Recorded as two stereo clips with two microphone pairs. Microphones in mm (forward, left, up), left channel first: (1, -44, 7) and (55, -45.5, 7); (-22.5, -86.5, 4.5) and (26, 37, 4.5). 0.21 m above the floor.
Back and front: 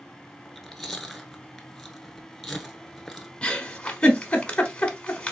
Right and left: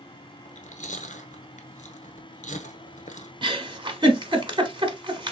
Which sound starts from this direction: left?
A giggle, at 3.4 s.